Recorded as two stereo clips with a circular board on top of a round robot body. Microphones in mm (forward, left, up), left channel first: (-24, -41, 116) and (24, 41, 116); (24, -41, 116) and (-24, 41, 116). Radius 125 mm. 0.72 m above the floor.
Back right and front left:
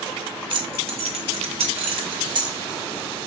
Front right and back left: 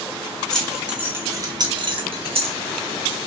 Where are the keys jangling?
25° left, 1.9 m; by 2.6 s 105° left, 2.5 m.